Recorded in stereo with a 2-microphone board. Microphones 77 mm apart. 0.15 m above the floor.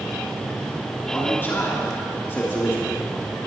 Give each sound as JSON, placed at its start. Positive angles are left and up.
{"t": 1.0, "sound": "a man speaking", "side_deg": 30, "distance_m": 2.5}